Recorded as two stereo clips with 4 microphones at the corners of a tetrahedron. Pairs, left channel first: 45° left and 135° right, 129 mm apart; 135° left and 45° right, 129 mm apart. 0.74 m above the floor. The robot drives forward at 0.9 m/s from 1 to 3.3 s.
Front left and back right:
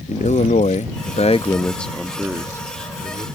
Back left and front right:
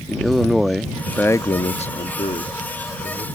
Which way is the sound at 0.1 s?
45° left.